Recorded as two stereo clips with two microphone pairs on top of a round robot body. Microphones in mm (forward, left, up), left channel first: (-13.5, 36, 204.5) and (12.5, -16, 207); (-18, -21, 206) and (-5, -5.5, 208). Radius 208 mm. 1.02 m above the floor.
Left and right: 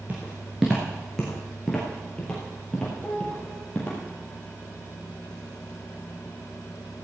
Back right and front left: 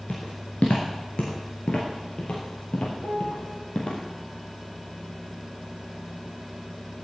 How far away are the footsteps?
About 1.0 m.